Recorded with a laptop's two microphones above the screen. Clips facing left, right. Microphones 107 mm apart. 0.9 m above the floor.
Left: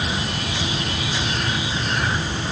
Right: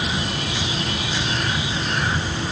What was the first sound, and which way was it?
Only background noise.